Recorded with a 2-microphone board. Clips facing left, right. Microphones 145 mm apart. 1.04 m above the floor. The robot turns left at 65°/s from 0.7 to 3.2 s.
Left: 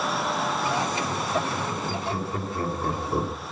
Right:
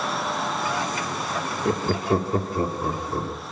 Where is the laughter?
85° right, 2.0 m; by 3.3 s 15° left (ahead or behind), 2.0 m.